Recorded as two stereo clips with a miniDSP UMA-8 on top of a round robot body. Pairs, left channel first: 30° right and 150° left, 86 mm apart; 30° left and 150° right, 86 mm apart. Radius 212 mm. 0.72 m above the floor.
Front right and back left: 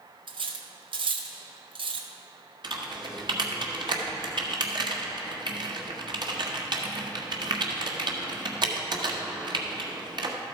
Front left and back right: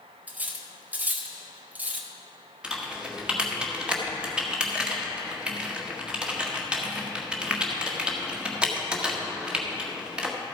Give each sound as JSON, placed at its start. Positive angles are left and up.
{"t": 0.3, "sound": "cutlery clinking", "azimuth_deg": 140, "distance_m": 1.0}
{"t": 2.6, "sound": "typing on a keyboard", "azimuth_deg": 135, "distance_m": 1.6}